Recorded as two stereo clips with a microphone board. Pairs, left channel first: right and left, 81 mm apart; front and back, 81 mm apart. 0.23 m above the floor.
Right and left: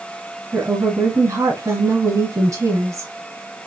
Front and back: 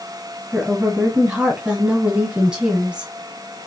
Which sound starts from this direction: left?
A woman speaking, at 0.5 s.